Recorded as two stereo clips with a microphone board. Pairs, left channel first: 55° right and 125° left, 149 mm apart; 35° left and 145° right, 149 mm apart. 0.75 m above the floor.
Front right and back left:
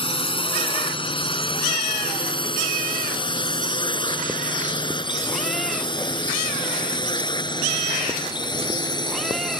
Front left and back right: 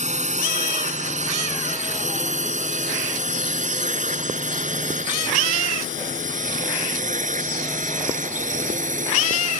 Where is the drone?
110° right; by 9.6 s 115° right.